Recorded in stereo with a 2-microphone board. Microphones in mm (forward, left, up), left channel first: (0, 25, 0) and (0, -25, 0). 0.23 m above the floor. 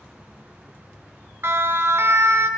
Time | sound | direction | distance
1.4 | a siren | 50° right (ahead or behind) | 2.5 m